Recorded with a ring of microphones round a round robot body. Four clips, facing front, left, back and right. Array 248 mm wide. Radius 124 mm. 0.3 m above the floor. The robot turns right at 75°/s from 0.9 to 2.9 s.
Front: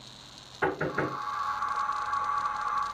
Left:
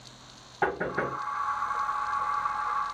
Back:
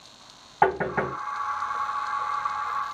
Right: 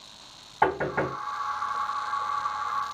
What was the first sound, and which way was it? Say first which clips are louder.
Knocking: right 4 dB, back 6 dB; 160° right.